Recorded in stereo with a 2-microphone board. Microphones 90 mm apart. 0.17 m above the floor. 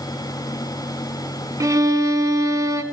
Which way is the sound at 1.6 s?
40° right (ahead or behind).